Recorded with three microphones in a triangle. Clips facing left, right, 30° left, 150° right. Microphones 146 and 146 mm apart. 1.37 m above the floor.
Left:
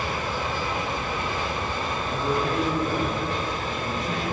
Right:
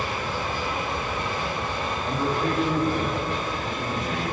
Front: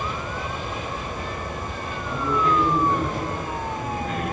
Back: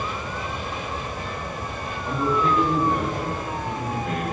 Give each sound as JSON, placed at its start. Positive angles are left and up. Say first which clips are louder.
{"t": 2.0, "sound": "a man speaking", "louder": "right 1 dB, back 1 dB", "azimuth_deg": -135, "distance_m": 3.5}